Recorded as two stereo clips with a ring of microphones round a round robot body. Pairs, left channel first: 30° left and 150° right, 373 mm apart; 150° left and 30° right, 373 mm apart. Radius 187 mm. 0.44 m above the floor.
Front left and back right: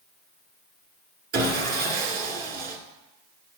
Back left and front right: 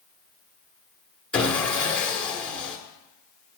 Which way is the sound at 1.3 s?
125° right.